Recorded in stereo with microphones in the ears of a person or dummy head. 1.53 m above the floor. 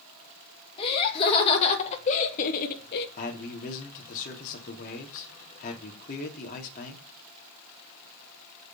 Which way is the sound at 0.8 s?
30° left (ahead or behind).